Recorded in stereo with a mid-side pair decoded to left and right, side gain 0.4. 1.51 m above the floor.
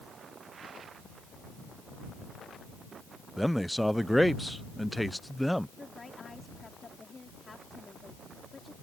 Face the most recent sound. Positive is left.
turn(degrees=30)